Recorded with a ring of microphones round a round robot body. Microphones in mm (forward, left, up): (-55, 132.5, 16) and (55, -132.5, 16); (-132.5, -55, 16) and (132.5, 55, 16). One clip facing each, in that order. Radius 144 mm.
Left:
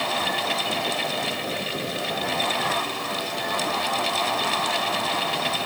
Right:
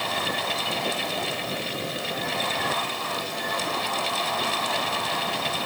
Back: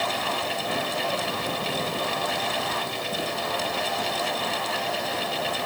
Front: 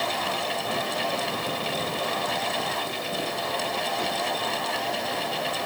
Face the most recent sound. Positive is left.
No sound to turn to.